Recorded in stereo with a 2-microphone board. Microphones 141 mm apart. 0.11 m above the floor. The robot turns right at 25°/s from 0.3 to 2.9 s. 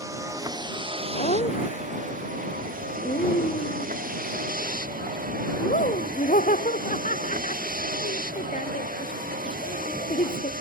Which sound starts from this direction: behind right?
A vehicle, at 0.0 s.